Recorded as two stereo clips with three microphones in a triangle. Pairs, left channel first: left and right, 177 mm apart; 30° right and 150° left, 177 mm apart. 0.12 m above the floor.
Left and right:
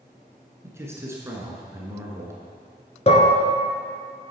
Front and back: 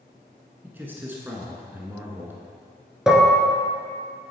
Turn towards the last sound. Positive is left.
turn(degrees=65)